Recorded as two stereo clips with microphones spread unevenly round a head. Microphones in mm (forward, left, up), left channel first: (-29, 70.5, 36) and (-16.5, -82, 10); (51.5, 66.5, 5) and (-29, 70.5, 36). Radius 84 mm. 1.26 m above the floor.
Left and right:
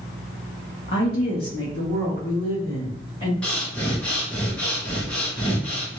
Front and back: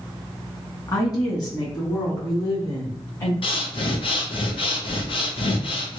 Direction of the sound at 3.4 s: 10° left.